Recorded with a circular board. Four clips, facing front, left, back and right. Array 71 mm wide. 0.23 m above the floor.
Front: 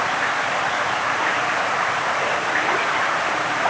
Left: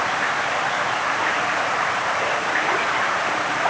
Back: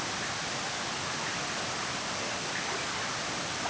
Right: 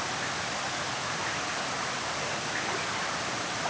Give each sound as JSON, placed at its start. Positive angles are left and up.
{"t": 0.0, "sound": "running water", "azimuth_deg": 40}